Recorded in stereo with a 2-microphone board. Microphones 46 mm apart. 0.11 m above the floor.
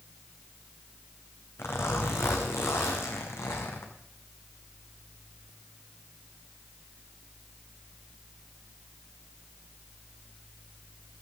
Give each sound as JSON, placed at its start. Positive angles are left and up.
{"t": 1.6, "sound": "a zipper", "side_deg": 70, "distance_m": 2.5}